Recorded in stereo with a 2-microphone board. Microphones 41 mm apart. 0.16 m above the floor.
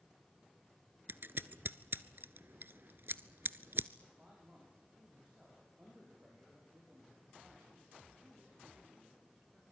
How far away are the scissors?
About 0.6 m.